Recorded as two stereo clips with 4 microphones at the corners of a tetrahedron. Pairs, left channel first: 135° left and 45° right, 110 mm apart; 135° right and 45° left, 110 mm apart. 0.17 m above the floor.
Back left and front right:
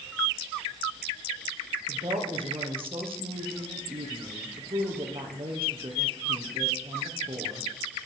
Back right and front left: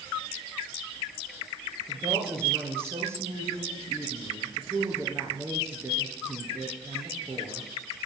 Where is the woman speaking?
20° right, 3.5 m.